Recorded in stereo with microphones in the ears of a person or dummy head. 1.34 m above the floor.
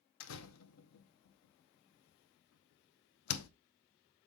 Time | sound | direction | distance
0.2 | a door slam | 75° left (ahead or behind) | 0.7 m